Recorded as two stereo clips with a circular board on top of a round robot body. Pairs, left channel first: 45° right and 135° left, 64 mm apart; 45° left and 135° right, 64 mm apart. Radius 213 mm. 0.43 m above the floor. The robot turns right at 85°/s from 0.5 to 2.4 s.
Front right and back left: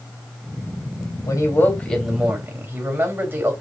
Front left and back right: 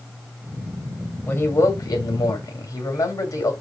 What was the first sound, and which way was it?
A man speaking, 20° right.